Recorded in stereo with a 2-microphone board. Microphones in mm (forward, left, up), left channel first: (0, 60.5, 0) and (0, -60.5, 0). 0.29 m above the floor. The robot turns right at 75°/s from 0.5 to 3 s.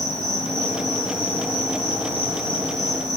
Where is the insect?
85° left, 6 m; by 3.2 s 85° right, 6 m.